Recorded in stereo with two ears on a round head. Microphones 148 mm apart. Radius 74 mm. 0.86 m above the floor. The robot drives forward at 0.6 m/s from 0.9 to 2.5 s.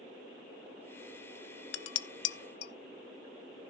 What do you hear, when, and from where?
1.7 s dishes clattering: 70° left (ahead or behind), 0.6 m; by 2.7 s 65° left (ahead or behind), 0.6 m